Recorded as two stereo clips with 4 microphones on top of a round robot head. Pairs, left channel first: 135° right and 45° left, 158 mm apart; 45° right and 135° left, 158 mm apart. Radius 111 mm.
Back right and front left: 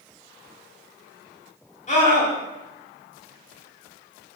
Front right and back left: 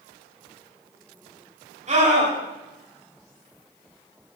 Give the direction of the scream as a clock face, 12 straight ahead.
6 o'clock.